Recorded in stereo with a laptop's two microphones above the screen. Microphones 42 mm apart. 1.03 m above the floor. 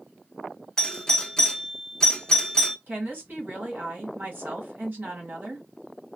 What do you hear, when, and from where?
0.8 s a doorbell: 20° left (ahead or behind), 0.5 m
2.9 s a woman speaking: 45° right (ahead or behind), 1.4 m